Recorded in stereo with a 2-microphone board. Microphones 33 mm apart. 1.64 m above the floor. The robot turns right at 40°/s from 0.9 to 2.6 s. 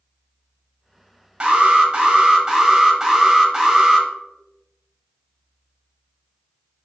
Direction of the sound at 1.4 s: 30° right (ahead or behind).